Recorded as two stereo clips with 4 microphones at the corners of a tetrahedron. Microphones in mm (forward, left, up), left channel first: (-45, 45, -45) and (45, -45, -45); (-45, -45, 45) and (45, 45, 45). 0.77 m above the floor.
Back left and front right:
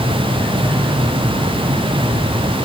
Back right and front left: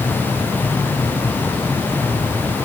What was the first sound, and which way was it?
Only background noise.